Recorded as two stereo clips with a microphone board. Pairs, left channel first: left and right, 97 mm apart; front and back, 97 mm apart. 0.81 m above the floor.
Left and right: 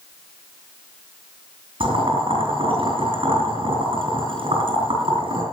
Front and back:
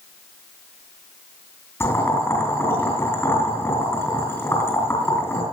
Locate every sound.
1.8 s boiling: 65° right, 6 m